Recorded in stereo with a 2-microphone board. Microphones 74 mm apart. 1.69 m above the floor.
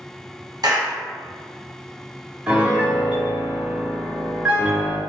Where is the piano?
10° right (ahead or behind), 0.7 m.